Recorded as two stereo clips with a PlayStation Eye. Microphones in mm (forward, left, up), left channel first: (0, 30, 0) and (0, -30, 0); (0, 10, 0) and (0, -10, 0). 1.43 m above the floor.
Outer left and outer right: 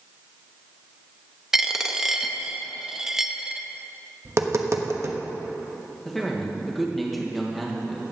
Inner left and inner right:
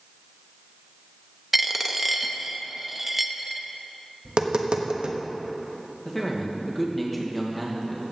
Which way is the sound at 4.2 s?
50° right (ahead or behind).